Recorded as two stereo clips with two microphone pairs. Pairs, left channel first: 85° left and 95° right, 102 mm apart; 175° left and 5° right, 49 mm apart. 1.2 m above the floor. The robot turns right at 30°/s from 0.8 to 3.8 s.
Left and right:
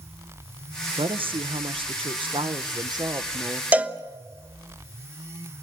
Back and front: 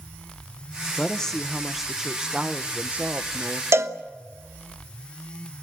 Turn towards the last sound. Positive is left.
turn(degrees=-20)